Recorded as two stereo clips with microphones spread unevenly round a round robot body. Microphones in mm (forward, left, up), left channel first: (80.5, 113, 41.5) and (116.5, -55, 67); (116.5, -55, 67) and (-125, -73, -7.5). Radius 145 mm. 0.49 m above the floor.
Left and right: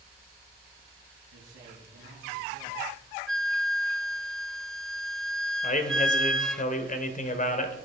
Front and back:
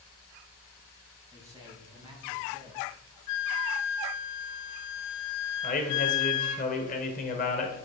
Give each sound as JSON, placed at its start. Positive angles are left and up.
{"t": 1.3, "sound": "a man speaking", "azimuth_deg": -105, "distance_m": 4.5}
{"t": 3.3, "sound": "a flute", "azimuth_deg": 15, "distance_m": 0.7}
{"t": 5.6, "sound": "a man speaking", "azimuth_deg": 70, "distance_m": 2.0}